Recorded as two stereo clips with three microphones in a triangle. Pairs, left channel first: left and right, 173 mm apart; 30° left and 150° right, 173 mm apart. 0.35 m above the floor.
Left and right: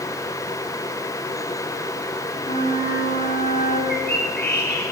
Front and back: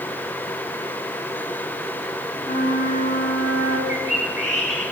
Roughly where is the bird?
Left.